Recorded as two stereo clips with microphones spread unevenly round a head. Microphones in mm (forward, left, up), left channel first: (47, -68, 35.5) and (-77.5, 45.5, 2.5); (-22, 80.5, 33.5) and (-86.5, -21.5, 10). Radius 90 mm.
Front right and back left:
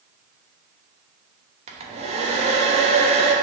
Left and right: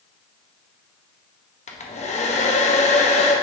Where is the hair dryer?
85° left, 1.1 m.